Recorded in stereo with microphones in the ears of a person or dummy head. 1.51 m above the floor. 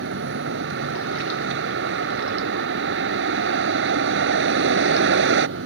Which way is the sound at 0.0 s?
65° right (ahead or behind).